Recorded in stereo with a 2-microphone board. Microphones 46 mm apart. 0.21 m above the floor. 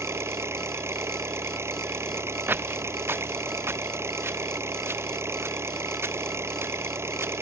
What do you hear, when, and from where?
0.0 s an engine running: 60° right (ahead or behind)
2.5 s footsteps: 45° right (ahead or behind); by 7.3 s 55° right (ahead or behind)